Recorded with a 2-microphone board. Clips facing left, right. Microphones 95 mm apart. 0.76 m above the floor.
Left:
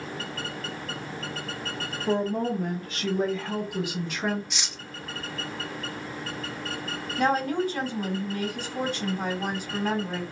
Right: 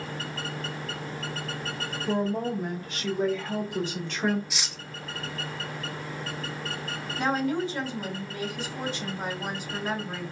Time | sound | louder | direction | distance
2.1 | a woman speaking | left 2 dB | 50° left (ahead or behind) | 1.8 m
4.5 | cutlery clinking | even | centre (ahead or behind) | 0.6 m
7.2 | a woman speaking | left 2 dB | 50° left (ahead or behind) | 2.5 m